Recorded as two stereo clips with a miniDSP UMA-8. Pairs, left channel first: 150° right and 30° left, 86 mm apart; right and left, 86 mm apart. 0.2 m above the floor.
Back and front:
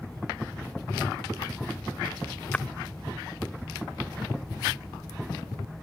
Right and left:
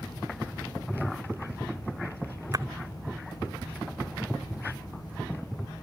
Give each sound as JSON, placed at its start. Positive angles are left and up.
{"t": 2.5, "sound": "a splash", "azimuth_deg": 135}